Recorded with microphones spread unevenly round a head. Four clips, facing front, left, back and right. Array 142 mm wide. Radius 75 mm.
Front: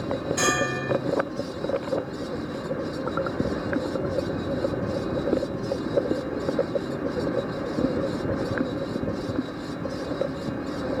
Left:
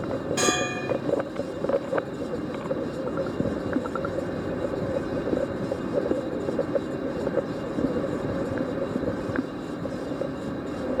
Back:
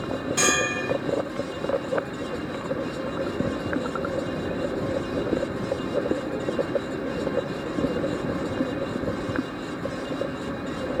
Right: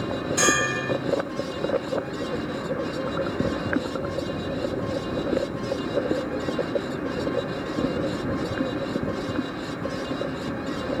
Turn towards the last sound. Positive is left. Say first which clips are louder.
# right 3 dB, back 1 dB
turn(degrees=115)